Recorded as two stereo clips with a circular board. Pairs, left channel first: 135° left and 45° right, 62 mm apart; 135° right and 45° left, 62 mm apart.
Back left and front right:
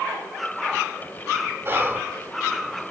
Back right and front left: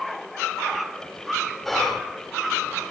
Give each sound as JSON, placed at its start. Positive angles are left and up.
{"t": 1.6, "sound": "whispering", "azimuth_deg": -50, "distance_m": 1.2}